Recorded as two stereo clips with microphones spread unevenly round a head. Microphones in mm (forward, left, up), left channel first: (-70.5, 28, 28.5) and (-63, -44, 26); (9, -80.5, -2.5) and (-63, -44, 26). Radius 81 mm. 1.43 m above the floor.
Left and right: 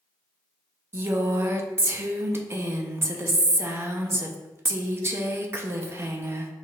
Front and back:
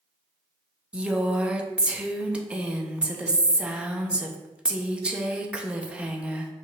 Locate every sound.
0.9 s a woman speaking: 140° right, 0.7 m